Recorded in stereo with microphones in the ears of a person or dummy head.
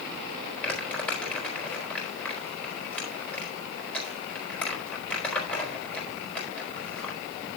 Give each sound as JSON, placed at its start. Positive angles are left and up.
{"t": 0.6, "sound": "crumpling", "side_deg": 10, "distance_m": 4.5}